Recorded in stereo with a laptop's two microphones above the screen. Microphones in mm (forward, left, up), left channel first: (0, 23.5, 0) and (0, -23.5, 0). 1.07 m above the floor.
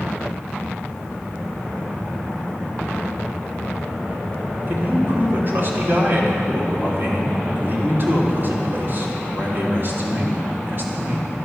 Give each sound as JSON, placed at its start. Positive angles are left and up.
{"t": 4.7, "sound": "a man speaking", "side_deg": -45, "distance_m": 3.5}